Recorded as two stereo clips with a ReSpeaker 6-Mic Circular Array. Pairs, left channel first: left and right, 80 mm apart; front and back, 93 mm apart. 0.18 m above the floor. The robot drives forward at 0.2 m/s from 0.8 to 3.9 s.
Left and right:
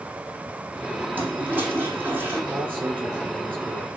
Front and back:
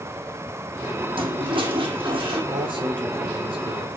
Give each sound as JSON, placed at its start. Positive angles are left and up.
{"t": 1.1, "sound": "a toilet flushing", "azimuth_deg": -155, "distance_m": 4.0}
{"t": 2.5, "sound": "a man speaking", "azimuth_deg": -155, "distance_m": 5.5}